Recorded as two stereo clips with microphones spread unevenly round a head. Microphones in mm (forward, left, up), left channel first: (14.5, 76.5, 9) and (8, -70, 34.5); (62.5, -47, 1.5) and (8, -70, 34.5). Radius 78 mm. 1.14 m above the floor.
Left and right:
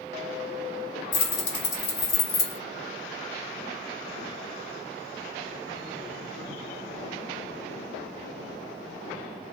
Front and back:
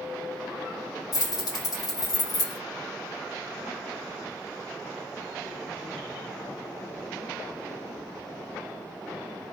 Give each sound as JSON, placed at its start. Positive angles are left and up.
{"t": 1.1, "sound": "keys jangling", "azimuth_deg": 50, "distance_m": 1.4}